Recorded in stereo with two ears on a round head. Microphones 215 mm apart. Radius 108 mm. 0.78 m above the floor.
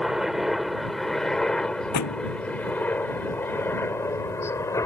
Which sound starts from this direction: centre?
A helicopter, at 0.0 s.